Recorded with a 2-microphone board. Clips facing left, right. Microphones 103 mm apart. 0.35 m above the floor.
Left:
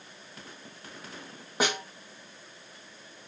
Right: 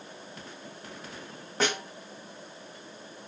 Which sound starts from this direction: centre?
A snare drum, at 1.6 s.